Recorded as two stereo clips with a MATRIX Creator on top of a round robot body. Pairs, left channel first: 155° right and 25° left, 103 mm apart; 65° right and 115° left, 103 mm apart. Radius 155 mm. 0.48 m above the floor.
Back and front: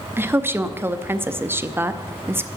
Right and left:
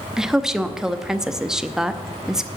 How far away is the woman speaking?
About 0.9 m.